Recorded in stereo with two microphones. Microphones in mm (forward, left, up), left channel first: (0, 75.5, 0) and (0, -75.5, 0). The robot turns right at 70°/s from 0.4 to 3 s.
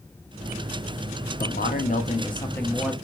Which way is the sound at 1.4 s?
85° left.